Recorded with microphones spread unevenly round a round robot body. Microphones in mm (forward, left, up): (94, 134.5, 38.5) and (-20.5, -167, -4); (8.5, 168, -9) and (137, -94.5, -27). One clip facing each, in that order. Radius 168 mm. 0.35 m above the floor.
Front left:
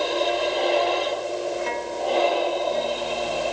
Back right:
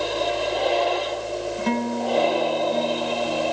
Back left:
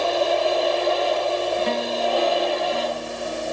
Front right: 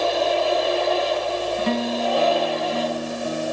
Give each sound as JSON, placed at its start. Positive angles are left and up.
{"t": 1.6, "sound": "a guitar", "azimuth_deg": -65}